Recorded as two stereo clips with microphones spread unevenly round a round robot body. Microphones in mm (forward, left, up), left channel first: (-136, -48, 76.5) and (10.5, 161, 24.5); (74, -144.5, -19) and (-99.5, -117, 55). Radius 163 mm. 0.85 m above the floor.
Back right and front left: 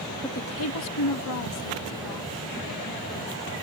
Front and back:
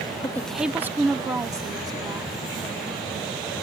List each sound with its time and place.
0.2 s a woman speaking: 35° right; by 3.4 s 120° right